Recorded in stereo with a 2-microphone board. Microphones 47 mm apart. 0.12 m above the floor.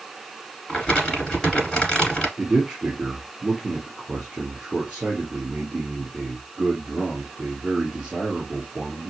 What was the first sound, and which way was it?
Crumpling, 20° left (ahead or behind).